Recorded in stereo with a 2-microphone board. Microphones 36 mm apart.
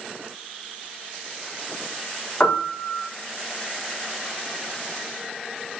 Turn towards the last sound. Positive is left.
turn(degrees=25)  # may be behind; listen again after turning